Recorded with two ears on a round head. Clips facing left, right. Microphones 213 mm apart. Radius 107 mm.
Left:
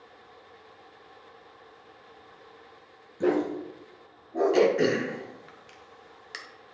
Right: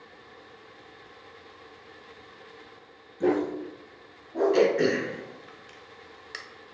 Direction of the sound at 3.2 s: 10° left (ahead or behind).